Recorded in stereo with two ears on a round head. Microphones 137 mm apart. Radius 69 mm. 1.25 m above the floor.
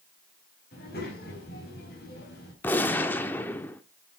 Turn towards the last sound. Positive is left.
turn(degrees=15)  # may be behind; listen again after turning